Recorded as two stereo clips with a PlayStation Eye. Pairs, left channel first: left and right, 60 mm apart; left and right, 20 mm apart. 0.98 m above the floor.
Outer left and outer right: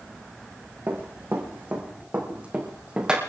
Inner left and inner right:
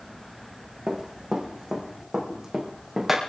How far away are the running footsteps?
About 4 m.